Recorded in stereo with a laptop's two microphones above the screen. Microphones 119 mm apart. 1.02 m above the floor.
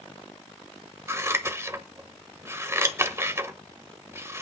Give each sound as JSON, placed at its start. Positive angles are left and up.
{"t": 1.1, "sound": "scissors", "side_deg": -20, "distance_m": 1.4}